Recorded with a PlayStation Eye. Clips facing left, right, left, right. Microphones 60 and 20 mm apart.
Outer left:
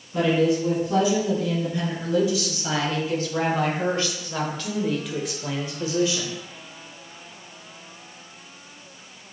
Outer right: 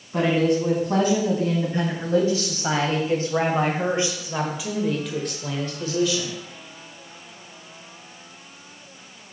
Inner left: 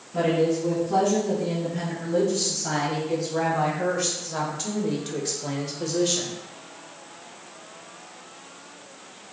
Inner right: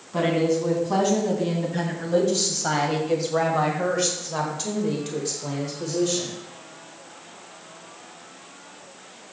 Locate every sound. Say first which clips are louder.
0.1 s a woman speaking: even, inner right 1 dB; 50° right (ahead or behind), 3 m; by 6.3 s 30° left (ahead or behind), 1.3 m